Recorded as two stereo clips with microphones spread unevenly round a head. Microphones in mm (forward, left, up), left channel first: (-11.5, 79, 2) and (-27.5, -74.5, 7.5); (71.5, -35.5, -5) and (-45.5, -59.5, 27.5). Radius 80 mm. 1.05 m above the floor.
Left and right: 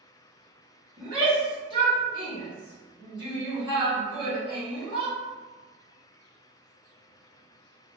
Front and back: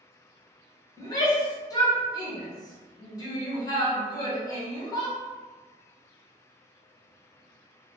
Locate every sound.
1.0 s a shout: 35° right, 1.6 m